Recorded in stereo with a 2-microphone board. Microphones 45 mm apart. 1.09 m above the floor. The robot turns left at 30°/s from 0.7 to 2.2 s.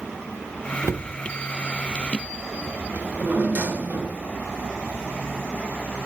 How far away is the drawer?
About 1.6 m.